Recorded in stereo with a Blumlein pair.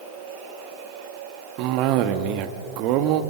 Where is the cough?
40° right, 1.7 m.